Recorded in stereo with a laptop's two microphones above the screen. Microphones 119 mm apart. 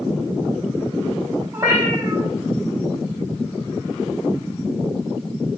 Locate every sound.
1.5 s a cat meowing: 20° right (ahead or behind), 0.9 m